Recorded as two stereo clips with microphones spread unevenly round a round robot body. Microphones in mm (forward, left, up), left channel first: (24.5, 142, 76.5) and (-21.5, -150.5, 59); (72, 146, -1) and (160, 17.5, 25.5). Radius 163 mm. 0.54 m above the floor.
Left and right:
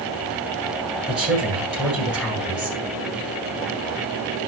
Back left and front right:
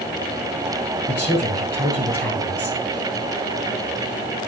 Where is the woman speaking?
175° left, 7.5 m.